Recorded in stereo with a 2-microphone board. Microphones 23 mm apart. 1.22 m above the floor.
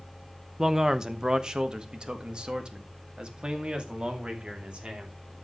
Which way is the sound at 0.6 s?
20° right (ahead or behind).